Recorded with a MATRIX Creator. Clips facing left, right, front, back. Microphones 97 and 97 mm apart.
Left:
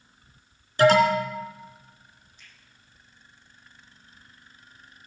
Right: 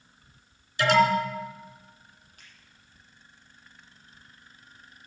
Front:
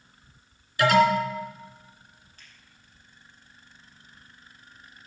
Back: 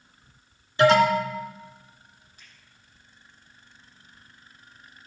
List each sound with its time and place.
0.8 s an alarm: 125° left, 3 m
2.4 s a finger snap: 100° right, 7 m